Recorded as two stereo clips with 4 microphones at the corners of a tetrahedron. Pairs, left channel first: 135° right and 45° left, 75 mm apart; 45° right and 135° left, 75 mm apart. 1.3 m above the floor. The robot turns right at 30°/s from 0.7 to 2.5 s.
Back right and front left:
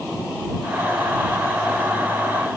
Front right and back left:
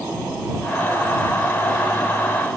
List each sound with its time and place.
Only background noise.